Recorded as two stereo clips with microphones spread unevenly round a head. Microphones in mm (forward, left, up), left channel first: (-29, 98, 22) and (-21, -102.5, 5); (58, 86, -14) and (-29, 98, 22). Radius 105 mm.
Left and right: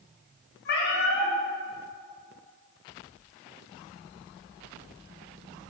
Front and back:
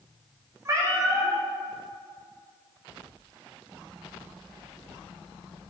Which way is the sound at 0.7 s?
120° left.